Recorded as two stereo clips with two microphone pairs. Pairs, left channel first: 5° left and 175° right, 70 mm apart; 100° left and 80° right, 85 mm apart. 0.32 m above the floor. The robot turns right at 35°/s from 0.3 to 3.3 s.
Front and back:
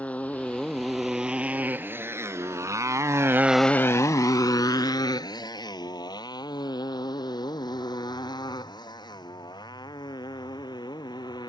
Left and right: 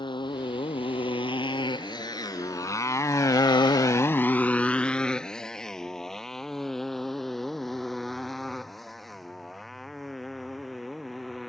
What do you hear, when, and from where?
0.0 s a motorcycle: 75° left; by 11.5 s 10° left